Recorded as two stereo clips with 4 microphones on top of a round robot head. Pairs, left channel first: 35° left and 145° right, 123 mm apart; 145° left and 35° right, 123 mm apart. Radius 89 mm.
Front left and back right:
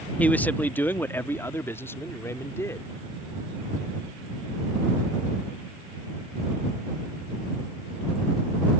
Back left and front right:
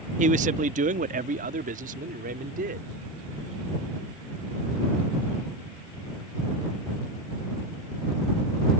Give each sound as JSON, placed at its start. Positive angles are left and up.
{"t": 0.2, "sound": "a man speaking", "azimuth_deg": -45}